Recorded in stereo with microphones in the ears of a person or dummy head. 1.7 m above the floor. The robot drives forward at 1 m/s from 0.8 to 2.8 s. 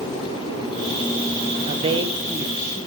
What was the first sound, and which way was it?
A woman speaking, 35° right (ahead or behind).